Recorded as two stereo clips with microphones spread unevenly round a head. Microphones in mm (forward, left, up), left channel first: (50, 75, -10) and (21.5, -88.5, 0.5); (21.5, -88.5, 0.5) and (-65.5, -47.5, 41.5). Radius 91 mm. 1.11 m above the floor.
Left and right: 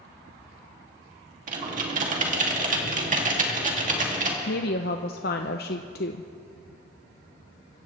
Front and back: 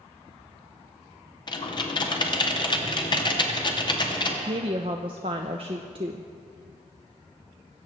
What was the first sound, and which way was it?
Typing on a keyboard, 55° right.